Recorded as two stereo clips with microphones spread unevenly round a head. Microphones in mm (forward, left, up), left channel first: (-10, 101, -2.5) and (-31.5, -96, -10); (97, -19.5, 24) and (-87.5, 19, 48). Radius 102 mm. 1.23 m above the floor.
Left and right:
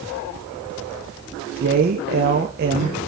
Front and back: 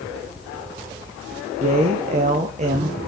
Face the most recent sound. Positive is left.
turn(degrees=-135)